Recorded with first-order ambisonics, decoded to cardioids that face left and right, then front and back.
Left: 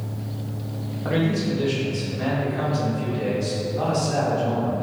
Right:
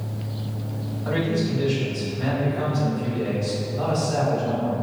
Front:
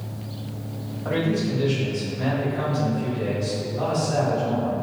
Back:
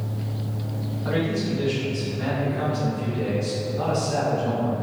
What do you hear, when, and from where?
1.1 s a man speaking: 85° left, 1.3 m